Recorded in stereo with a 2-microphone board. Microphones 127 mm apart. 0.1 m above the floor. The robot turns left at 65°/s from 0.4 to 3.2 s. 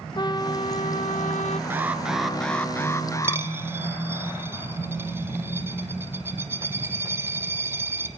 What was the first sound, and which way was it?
A trumpet, 145° left.